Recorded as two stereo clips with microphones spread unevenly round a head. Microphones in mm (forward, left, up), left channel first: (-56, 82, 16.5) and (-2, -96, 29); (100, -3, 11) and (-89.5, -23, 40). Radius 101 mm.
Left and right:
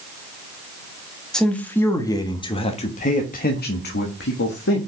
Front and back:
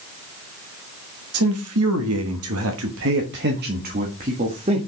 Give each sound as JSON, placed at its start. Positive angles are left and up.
{"t": 1.3, "sound": "a man speaking", "azimuth_deg": -165, "distance_m": 1.6}